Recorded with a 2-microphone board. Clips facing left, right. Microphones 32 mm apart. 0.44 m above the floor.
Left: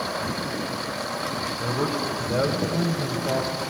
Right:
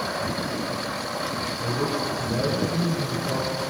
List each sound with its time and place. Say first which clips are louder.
1.6 s a man speaking: even; 55° left (ahead or behind), 1.7 m